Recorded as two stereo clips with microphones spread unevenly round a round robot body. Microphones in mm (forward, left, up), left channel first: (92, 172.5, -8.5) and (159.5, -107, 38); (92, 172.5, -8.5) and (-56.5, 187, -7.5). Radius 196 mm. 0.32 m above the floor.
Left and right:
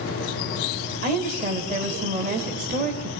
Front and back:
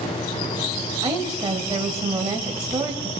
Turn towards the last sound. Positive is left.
turn(degrees=-140)